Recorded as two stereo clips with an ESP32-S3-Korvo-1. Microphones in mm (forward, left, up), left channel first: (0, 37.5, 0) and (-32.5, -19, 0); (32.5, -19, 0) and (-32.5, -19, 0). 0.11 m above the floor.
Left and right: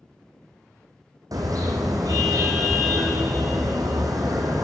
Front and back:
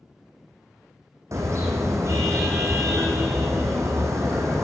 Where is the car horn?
140° right, 3.5 m.